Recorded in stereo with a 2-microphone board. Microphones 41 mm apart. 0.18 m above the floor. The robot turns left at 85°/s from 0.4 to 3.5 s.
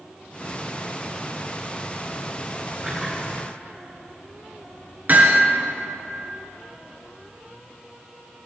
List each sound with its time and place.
2.8 s a splash: 30° right (ahead or behind), 6 m; by 3.5 s 30° left (ahead or behind), 6 m
5.1 s hammering: 45° right (ahead or behind), 2.5 m